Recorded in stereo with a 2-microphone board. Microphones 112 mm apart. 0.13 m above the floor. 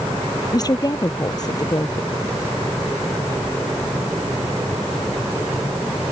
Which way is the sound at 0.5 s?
35° left (ahead or behind).